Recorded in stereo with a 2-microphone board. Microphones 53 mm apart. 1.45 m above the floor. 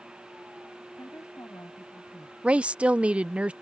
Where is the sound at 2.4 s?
20° right (ahead or behind).